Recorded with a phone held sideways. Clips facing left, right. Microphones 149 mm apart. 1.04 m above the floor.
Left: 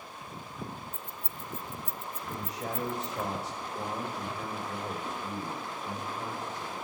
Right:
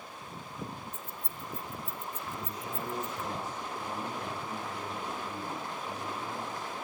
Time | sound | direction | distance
0.9 | keys jangling | 55° left (ahead or behind) | 1.3 m
2.3 | a man speaking | 85° left | 6 m